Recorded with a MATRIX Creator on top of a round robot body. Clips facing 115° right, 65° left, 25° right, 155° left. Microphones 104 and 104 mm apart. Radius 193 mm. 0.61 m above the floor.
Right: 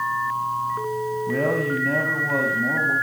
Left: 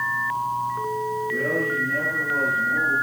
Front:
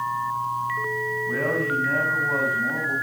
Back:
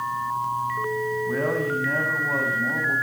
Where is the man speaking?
120° right, 6.5 m; by 2.9 s 110° right, 6.5 m.